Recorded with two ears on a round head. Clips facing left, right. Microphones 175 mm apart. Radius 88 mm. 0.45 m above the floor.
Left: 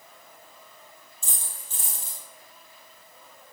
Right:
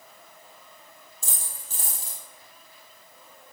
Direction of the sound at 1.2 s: 35° right (ahead or behind).